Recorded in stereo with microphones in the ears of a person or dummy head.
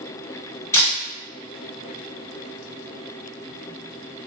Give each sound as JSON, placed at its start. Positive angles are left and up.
{"t": 0.7, "sound": "a camera shutter", "side_deg": 20, "distance_m": 1.8}